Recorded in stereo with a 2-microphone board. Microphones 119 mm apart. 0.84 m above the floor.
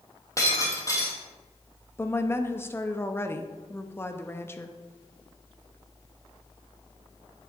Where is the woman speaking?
20° left (ahead or behind), 0.7 m.